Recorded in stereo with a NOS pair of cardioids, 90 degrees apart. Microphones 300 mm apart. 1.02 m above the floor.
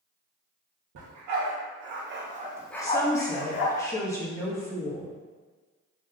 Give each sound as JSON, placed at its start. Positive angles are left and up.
{"t": 0.9, "sound": "a dog barking", "azimuth_deg": -70, "distance_m": 1.6}
{"t": 2.8, "sound": "a woman speaking", "azimuth_deg": 10, "distance_m": 1.3}